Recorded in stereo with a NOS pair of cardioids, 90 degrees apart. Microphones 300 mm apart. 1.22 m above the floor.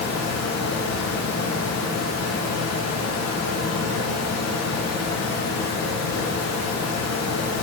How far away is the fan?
About 0.9 m.